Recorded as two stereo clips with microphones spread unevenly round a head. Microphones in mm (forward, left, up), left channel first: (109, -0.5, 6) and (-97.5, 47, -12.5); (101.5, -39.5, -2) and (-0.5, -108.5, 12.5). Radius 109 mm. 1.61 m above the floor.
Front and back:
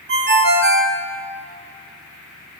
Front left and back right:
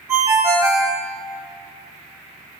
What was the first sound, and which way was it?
A ringtone, 155° left.